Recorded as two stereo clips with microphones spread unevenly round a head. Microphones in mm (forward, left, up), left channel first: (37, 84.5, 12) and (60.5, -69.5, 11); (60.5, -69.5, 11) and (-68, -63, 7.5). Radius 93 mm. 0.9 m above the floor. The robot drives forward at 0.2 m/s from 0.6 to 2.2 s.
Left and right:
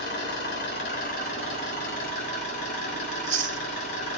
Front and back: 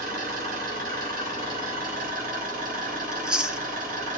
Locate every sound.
0.0 s an engine running: 150° left, 3.5 m
3.1 s chewing: 100° right, 0.8 m